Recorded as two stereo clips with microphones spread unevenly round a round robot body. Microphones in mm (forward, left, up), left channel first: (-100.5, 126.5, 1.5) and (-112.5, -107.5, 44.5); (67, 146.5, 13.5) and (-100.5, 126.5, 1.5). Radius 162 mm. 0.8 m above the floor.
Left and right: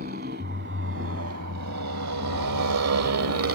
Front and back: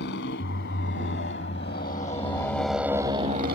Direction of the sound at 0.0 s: 30° right.